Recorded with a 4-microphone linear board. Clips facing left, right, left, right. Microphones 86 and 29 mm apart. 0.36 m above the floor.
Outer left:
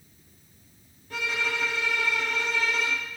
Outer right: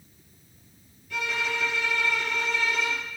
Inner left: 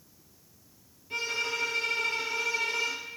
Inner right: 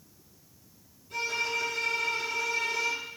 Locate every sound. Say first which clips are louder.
1.1 s a violin: even, inner right 1 dB; 40° left (ahead or behind), 3.5 m